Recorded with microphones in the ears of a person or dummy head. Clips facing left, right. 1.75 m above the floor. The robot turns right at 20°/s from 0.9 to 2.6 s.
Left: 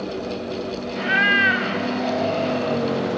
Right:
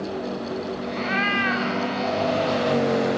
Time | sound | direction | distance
0.9 | a cat meowing | 10° left (ahead or behind) | 1.4 m